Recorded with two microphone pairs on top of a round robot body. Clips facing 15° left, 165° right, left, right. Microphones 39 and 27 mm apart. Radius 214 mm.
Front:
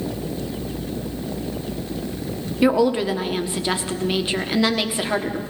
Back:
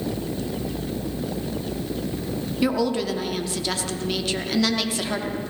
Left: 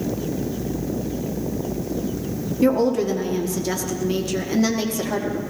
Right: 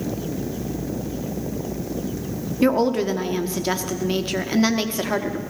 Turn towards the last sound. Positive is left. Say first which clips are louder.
# front 5 dB, even
turn(degrees=-55)